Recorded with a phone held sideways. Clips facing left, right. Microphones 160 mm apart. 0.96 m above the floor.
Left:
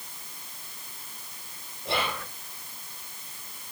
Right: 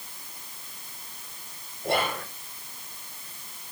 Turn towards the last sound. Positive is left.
turn(degrees=-50)  # may be behind; listen again after turning